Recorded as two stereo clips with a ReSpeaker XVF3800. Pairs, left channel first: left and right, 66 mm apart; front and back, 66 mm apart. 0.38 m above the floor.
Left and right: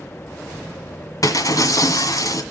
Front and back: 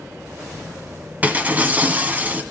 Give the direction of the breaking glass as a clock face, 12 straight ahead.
8 o'clock.